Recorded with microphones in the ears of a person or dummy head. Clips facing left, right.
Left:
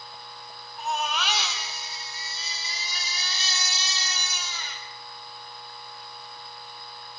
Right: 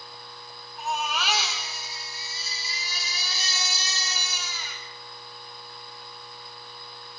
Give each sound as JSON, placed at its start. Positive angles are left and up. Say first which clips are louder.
{"t": 0.8, "sound": "a baby crying", "louder": "left 1 dB", "side_deg": -5, "distance_m": 4.0}